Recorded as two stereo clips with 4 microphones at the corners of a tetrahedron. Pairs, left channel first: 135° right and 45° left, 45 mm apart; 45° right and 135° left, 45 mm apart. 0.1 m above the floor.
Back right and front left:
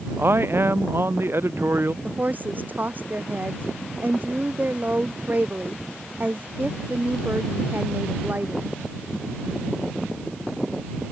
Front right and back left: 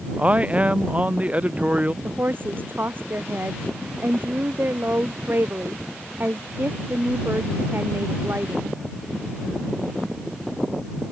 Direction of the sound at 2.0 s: 95° left.